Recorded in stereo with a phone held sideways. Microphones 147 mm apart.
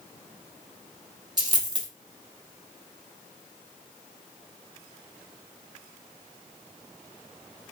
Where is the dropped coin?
30° right (ahead or behind), 1.1 m.